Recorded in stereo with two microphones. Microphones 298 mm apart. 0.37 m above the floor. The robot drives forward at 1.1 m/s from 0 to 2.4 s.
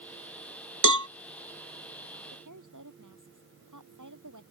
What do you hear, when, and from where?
0.8 s a cowbell: 80° right; by 1.1 s 65° right (ahead or behind)
2.3 s a woman speaking: 80° right